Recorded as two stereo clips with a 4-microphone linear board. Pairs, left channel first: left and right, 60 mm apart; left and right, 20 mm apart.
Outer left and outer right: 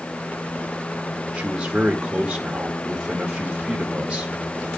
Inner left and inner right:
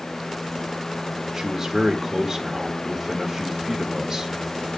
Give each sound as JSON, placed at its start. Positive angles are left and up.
{"t": 1.3, "sound": "a man speaking", "side_deg": -20, "distance_m": 1.0}